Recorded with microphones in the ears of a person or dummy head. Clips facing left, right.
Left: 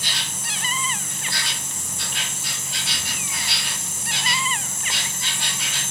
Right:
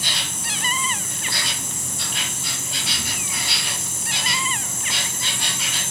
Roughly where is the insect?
Right.